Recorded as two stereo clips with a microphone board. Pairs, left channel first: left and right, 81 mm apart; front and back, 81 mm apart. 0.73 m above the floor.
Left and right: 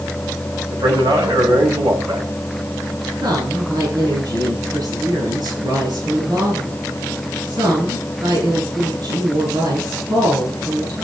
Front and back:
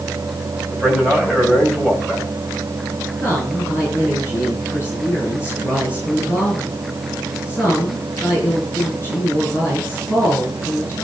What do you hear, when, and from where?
0.7 s a man speaking: 85° right, 4.5 m
3.2 s a woman speaking: 60° right, 8.5 m